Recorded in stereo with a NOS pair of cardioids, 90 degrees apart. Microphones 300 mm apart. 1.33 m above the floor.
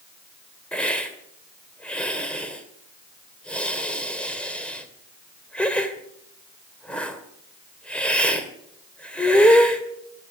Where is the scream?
No scream in this recording.